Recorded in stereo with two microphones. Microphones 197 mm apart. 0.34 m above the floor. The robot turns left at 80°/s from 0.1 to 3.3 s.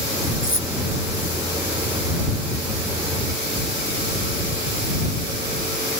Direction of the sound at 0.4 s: 80° left.